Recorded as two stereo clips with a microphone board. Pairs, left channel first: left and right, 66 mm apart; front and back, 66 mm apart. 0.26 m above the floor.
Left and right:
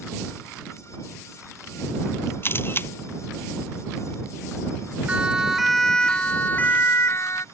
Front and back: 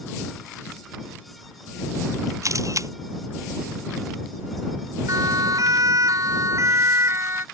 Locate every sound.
2.4 s a camera shutter: 145° left
5.1 s a siren: 160° right; by 7.5 s 130° left